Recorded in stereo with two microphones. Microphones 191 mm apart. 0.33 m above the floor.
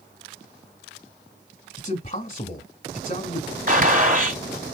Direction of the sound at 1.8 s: 30° left (ahead or behind).